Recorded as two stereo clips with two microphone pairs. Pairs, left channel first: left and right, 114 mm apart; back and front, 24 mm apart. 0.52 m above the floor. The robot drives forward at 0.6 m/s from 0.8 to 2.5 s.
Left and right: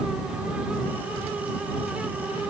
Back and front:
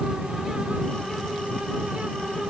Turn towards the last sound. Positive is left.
No sound to turn to.